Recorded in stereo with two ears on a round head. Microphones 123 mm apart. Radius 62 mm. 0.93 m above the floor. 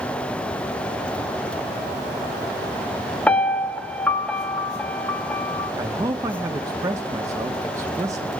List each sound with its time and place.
3.3 s a piano: 10° left (ahead or behind), 0.9 m
5.8 s a man speaking: 25° right (ahead or behind), 0.9 m